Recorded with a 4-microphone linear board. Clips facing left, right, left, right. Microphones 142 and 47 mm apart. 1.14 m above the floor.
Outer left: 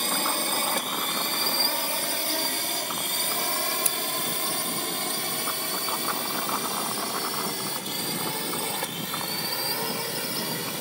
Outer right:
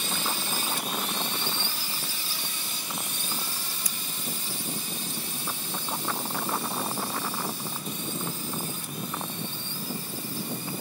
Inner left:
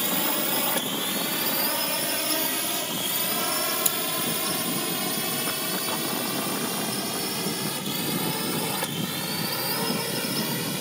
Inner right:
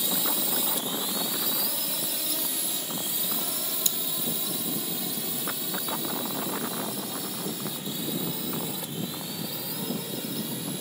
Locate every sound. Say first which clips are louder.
0.0 s a drone: outer left 4 dB, inner left 5 dB; 55° left (ahead or behind); by 10.8 s 75° left (ahead or behind)
3.9 s scissors: outer left 7 dB, inner left 5 dB; 25° left (ahead or behind)